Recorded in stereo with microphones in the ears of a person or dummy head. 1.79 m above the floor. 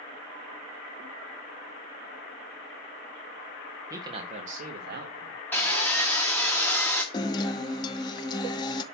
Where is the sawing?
10° left (ahead or behind), 1.4 m.